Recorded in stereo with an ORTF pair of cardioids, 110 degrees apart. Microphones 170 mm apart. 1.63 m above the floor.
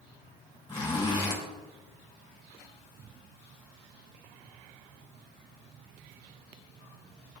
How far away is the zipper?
About 3.5 m.